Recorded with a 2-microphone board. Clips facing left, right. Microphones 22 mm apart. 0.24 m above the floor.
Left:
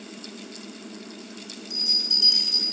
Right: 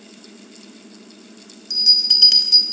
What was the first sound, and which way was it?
A bell, 55° right (ahead or behind).